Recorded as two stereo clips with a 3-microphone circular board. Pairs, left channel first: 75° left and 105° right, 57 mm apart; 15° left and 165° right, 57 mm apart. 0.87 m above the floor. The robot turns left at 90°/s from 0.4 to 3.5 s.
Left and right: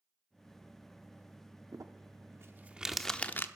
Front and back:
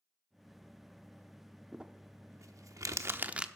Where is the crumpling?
85° right, 0.7 m; by 3.5 s 120° left, 0.7 m.